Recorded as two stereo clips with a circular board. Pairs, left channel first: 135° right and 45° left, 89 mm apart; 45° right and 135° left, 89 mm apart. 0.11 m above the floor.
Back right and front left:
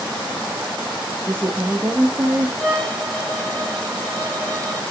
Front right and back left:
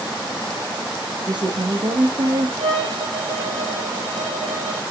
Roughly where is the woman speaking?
Left.